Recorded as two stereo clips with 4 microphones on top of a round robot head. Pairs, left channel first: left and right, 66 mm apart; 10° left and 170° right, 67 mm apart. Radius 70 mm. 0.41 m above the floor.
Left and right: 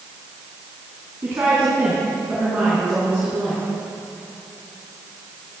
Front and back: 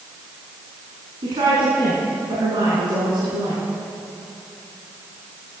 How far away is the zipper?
No zipper in this recording.